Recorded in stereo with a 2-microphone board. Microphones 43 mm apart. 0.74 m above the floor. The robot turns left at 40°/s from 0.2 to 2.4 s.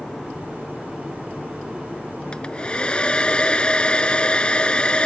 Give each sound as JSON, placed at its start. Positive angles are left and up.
{"t": 2.3, "sound": "a hair dryer", "side_deg": 20}